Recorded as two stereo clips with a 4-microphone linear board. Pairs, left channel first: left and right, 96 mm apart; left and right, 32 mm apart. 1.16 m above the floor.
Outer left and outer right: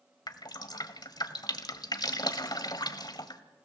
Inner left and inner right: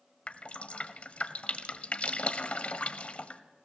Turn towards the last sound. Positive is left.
turn(degrees=45)  # may be behind; listen again after turning